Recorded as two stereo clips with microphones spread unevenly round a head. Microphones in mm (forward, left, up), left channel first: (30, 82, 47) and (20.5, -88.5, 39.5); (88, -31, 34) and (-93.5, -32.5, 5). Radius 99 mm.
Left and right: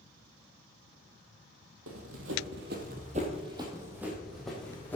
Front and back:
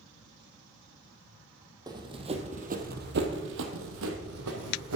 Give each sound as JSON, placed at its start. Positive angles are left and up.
{"t": 1.9, "sound": "running footsteps", "azimuth_deg": -105, "distance_m": 2.0}